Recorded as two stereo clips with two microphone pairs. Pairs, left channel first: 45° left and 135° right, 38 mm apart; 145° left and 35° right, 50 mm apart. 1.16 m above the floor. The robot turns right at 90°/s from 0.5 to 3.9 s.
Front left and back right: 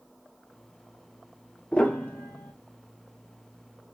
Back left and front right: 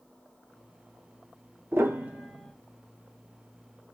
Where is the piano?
15° right, 1.1 m; by 2.5 s 60° left, 1.1 m.